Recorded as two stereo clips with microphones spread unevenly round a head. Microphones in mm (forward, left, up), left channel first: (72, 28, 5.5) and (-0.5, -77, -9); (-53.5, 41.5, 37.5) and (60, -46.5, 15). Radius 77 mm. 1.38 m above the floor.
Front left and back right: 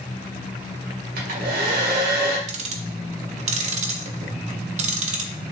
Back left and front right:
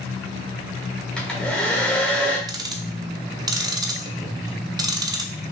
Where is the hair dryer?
130° right, 1.6 m.